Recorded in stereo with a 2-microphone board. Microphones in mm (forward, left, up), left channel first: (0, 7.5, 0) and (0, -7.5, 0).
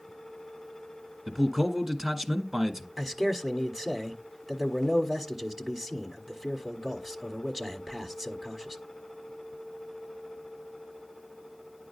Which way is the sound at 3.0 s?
30° right (ahead or behind).